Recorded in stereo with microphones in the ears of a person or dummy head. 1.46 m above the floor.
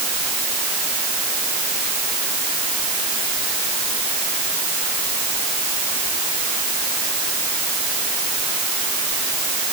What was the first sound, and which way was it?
Only background noise.